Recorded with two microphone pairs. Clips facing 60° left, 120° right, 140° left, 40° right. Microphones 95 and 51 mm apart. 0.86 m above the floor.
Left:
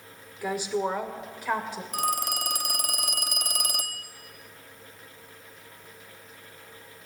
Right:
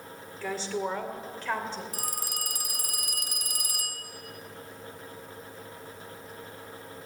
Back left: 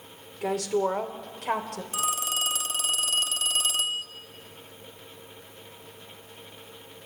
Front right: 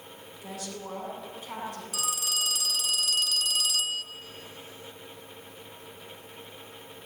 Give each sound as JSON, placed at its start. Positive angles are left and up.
{"t": 0.4, "sound": "a woman speaking", "azimuth_deg": 135, "distance_m": 2.0}
{"t": 1.9, "sound": "a phone ringing", "azimuth_deg": 85, "distance_m": 0.9}